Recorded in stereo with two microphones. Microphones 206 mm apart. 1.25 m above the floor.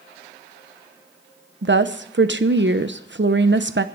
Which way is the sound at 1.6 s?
65° right (ahead or behind).